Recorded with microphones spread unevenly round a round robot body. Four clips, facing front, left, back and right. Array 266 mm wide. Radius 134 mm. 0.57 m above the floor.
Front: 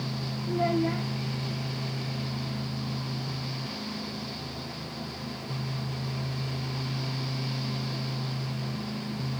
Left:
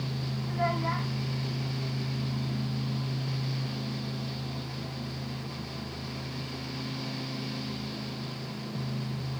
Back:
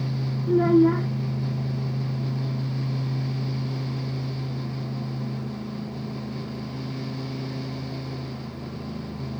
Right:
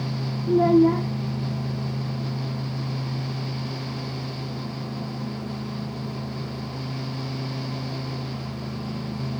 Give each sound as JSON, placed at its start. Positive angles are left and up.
{"t": 0.5, "sound": "a child speaking", "azimuth_deg": -135}